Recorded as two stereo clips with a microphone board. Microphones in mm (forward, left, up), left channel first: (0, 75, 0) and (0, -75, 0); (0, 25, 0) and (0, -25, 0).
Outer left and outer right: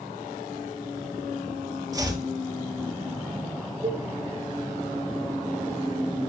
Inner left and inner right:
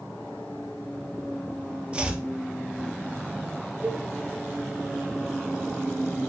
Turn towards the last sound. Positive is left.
turn(degrees=-50)  # may be behind; listen again after turning